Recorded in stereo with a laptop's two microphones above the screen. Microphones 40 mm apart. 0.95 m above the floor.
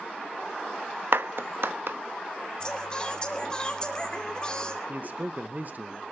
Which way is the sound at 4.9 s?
45° right (ahead or behind).